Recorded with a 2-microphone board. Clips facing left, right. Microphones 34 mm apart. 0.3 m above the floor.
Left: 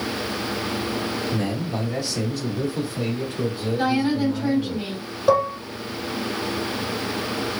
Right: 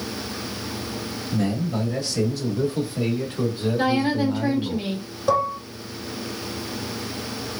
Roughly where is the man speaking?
Centre.